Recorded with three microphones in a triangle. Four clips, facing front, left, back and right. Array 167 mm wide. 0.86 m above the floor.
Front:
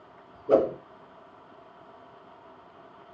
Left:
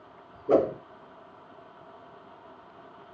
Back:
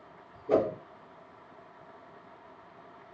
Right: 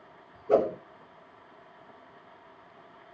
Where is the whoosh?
75° left, 1.8 m.